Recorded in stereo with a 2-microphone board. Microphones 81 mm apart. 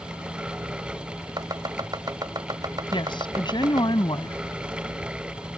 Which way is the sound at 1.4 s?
60° right (ahead or behind).